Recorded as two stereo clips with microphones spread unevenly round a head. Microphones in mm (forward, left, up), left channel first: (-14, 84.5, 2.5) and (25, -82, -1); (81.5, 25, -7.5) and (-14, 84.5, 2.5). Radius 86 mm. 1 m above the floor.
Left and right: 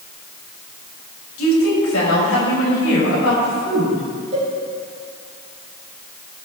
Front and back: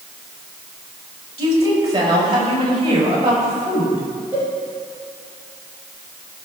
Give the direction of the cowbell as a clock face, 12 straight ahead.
4 o'clock.